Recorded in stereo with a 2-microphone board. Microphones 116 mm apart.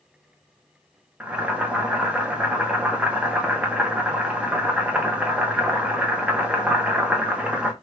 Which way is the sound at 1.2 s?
10° right (ahead or behind).